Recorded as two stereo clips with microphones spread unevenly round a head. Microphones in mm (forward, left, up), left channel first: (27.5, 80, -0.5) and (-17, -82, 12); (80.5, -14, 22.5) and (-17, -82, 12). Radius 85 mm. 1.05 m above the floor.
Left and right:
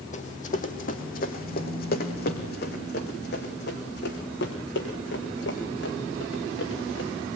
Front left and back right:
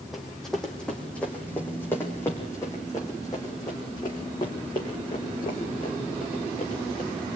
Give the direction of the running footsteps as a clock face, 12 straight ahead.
8 o'clock.